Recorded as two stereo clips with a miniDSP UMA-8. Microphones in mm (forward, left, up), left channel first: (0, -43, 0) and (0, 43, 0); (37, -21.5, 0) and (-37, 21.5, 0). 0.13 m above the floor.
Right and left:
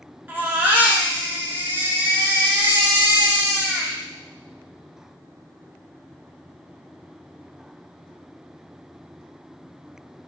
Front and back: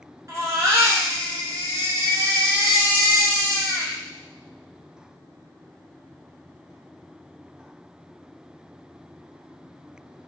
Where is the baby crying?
145° left, 1.3 m.